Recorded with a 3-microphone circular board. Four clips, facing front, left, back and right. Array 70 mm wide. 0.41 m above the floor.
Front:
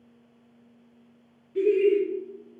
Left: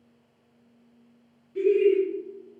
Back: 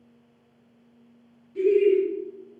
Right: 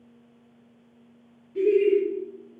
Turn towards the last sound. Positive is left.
turn(degrees=-10)